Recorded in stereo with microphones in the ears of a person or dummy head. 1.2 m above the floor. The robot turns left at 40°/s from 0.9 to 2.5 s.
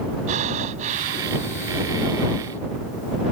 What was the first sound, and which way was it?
Breathing, 40° right (ahead or behind).